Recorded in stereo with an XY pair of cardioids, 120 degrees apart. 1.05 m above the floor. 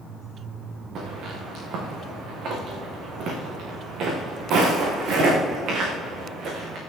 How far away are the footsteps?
About 5 m.